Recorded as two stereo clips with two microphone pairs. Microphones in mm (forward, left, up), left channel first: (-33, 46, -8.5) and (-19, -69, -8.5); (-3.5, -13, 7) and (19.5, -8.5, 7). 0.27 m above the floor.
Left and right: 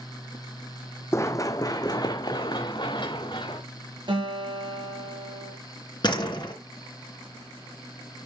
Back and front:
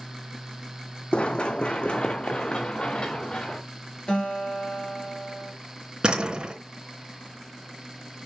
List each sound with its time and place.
1.1 s running footsteps: 160° left, 0.7 m; by 3.6 s 140° left, 2.0 m
4.1 s a guitar: 125° right, 5 m
6.0 s a door slam: 55° left, 3 m